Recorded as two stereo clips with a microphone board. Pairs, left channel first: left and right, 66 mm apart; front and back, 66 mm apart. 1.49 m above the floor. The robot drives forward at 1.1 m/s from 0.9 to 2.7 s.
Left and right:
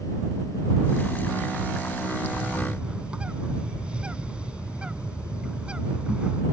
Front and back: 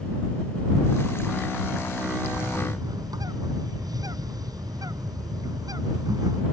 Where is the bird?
165° right.